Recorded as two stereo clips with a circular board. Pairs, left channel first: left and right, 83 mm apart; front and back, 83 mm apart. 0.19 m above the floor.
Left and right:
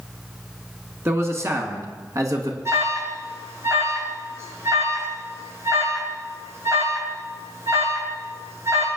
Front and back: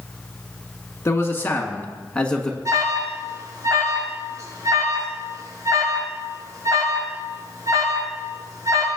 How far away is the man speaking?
About 2 m.